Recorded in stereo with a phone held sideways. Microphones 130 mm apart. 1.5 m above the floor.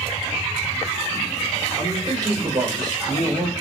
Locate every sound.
1.8 s a man speaking: 30° right (ahead or behind), 6 m; by 3.5 s 40° right (ahead or behind), 7.5 m